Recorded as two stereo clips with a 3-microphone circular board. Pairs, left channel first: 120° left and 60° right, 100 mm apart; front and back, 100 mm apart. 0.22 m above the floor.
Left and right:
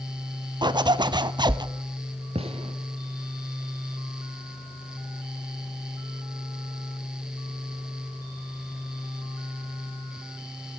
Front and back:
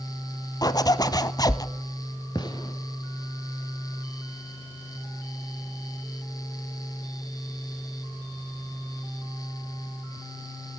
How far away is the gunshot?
About 1.2 m.